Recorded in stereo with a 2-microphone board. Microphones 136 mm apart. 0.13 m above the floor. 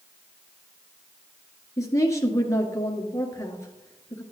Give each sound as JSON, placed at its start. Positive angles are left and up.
{"t": 1.8, "sound": "a woman speaking", "side_deg": 25, "distance_m": 1.5}